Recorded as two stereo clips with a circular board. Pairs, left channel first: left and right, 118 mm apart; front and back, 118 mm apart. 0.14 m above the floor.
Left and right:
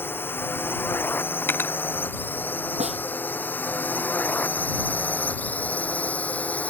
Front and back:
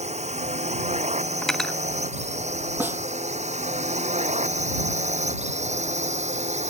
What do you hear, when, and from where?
0.0 s a drone: 160° left; by 6.7 s 165° left
1.4 s cutlery clinking: 75° left
2.8 s a snare drum: 105° right